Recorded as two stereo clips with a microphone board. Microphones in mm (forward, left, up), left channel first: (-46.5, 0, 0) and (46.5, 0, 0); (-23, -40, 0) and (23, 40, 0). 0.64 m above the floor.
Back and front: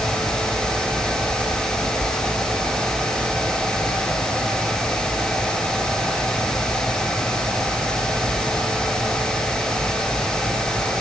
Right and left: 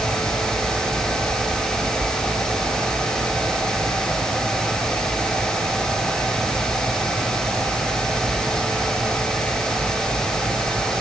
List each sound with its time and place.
Only background noise.